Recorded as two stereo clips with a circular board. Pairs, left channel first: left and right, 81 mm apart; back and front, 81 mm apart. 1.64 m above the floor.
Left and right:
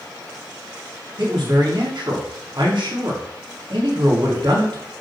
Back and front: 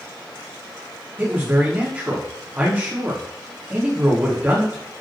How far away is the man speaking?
About 3.5 m.